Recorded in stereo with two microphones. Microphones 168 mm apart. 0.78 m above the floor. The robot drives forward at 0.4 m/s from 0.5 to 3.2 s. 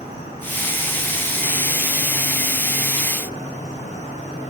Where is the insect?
40° left (ahead or behind), 8.5 m; by 4.5 s 50° left (ahead or behind), 8 m.